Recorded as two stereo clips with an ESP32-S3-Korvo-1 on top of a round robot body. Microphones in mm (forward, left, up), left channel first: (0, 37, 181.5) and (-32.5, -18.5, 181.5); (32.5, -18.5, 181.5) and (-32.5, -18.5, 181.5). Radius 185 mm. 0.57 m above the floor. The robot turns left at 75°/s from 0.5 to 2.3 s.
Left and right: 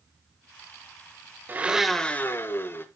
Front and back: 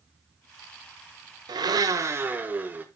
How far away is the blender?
About 0.8 m.